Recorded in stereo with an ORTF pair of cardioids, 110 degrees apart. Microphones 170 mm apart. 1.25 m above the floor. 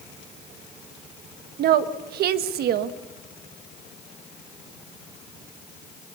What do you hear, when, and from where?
1.6 s a woman speaking: 70° right, 1.4 m